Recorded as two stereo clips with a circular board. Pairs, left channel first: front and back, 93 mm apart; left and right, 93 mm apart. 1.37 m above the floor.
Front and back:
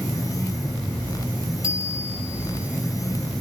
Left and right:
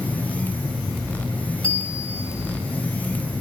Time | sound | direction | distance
1.6 | a bicycle bell | 170° left | 5 m